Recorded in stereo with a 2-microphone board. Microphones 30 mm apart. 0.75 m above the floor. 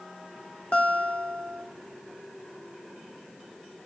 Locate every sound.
0.7 s a guitar: 40° left (ahead or behind), 2.5 m